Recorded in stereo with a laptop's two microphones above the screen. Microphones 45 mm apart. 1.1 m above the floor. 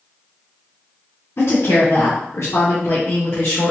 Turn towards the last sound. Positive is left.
turn(degrees=50)  # may be behind; listen again after turning